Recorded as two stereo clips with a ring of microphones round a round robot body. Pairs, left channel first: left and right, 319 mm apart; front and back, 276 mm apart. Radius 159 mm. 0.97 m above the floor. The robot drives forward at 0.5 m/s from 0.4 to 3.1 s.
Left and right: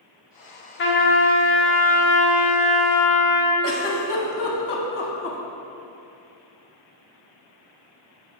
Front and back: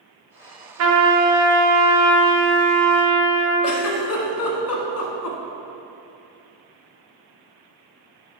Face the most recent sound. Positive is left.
turn(degrees=35)